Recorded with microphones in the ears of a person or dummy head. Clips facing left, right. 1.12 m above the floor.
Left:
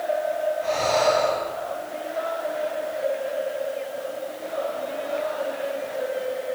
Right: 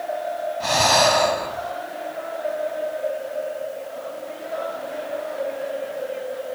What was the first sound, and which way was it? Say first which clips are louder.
Breathing: right 4 dB; 80° right.